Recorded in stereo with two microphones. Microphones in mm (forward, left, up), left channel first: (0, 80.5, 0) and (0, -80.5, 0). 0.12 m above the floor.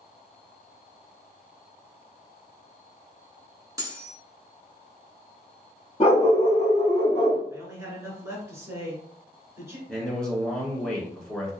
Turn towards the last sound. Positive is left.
turn(degrees=5)  # may be behind; listen again after turning